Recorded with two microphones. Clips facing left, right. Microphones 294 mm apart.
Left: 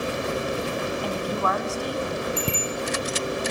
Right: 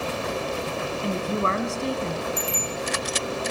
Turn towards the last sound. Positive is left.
turn(degrees=65)  # may be behind; listen again after turning